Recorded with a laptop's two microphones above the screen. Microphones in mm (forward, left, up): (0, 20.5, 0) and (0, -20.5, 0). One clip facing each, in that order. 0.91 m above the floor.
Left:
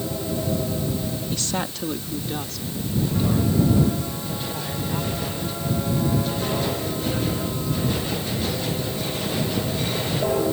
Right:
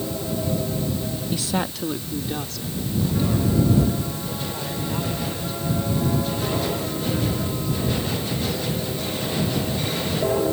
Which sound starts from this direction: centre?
A woman speaking, at 1.3 s.